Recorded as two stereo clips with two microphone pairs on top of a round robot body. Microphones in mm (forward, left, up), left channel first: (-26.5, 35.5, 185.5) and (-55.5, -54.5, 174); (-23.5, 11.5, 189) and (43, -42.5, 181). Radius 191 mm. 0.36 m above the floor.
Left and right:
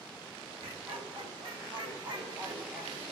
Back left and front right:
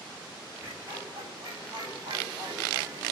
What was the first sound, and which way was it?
Laughter, 100° right.